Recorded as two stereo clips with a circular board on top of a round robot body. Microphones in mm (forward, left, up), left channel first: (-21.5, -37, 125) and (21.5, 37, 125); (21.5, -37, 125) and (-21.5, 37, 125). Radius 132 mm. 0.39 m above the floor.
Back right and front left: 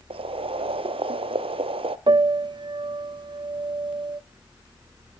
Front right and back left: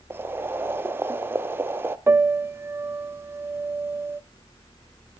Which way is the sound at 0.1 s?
55° left.